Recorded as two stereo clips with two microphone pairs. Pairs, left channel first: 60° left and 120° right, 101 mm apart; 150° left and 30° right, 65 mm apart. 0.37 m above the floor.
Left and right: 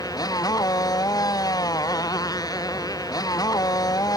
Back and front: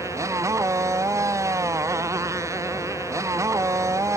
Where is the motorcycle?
10° left.